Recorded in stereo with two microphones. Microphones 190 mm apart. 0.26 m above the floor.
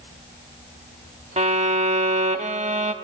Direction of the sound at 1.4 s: 40° right (ahead or behind).